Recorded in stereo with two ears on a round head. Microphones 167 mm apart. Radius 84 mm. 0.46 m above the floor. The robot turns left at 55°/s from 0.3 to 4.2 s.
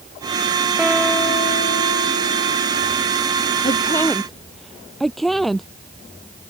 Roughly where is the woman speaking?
Ahead left.